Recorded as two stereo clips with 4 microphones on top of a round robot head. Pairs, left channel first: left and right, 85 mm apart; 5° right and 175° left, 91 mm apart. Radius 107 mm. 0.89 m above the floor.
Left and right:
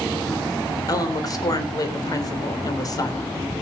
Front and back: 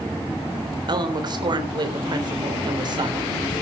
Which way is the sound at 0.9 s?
135° left.